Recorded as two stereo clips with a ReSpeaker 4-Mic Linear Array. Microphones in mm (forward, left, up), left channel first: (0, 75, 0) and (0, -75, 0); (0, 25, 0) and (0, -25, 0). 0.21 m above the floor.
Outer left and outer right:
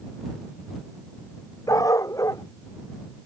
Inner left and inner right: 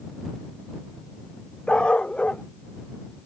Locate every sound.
1.7 s a dog barking: 20° left (ahead or behind)